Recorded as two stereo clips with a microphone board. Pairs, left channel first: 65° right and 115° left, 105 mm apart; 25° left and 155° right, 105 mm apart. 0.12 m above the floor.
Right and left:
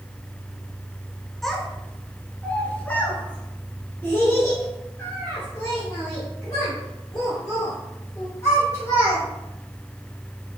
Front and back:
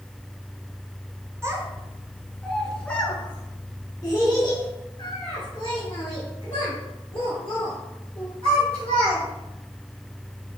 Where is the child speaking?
150° right, 1.1 m; by 9.2 s straight ahead, 3.5 m.